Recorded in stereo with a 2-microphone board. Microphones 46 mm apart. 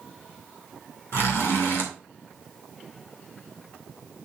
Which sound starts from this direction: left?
A zipper, at 1.1 s.